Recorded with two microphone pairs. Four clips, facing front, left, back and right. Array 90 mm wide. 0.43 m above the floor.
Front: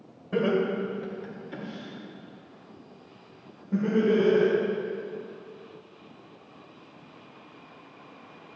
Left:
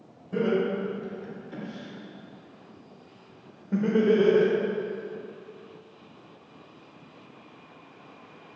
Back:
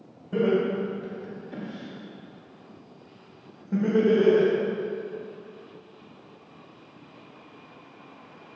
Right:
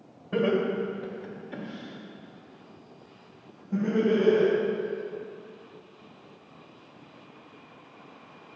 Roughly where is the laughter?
Ahead right.